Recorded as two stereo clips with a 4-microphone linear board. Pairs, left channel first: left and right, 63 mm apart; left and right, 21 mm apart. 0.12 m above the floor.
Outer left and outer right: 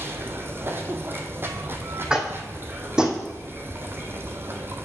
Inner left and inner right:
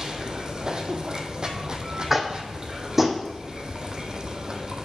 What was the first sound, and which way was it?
Running water, 35° right (ahead or behind).